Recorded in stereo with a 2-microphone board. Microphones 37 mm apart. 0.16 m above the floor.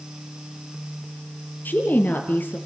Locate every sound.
1.6 s a woman speaking: 60° left (ahead or behind), 4 m